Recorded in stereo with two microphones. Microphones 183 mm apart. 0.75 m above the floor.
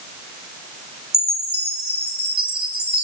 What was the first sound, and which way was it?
A chime, 55° right (ahead or behind).